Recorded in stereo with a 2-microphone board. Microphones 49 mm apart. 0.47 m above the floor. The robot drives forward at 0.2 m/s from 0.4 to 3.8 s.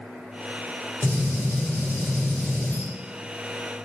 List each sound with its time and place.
1.0 s a gunshot: 60° left (ahead or behind), 2.0 m